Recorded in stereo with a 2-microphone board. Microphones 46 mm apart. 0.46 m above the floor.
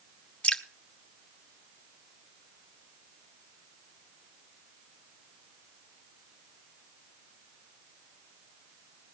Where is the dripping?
25° left (ahead or behind), 1.0 m.